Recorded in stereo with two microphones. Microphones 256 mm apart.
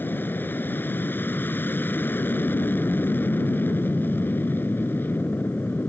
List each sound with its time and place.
0.0 s an aircraft: 10° left (ahead or behind)